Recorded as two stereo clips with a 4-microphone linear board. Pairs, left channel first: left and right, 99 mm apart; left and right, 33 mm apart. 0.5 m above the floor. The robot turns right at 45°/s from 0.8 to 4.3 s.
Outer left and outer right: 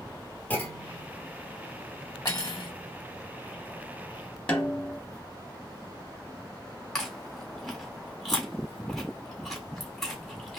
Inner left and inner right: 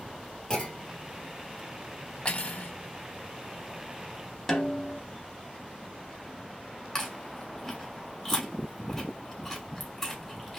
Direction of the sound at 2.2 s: 40° left (ahead or behind).